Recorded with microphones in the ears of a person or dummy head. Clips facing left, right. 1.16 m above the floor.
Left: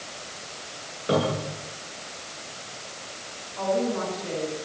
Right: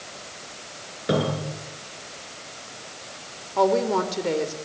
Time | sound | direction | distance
1.1 | a cupboard door | 20° right (ahead or behind) | 10 m
3.6 | a woman speaking | 85° right | 3 m